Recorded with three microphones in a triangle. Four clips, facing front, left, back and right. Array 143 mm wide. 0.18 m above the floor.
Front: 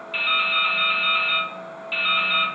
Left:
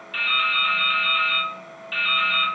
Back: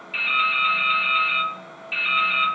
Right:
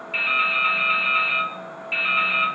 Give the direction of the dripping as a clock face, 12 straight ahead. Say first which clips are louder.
Even, back 1 dB; 1 o'clock.